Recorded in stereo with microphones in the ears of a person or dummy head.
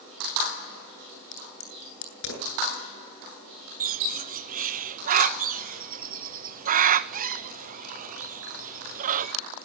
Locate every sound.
1.3 s a crack: 80° left, 9 m
3.8 s a bird: 40° right (ahead or behind), 0.8 m